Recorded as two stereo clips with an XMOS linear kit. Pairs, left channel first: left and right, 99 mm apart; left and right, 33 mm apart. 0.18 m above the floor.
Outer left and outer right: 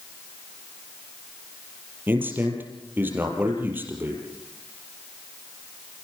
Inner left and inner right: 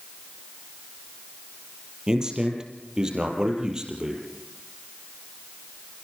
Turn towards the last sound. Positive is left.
turn(degrees=-20)  # may be behind; listen again after turning